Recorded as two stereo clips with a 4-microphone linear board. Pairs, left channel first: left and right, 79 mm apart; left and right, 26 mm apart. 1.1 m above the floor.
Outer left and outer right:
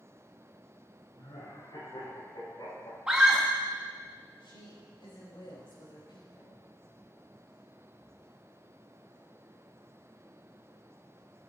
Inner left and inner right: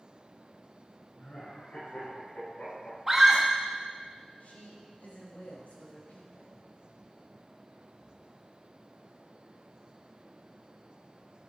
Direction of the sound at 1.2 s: 80° left.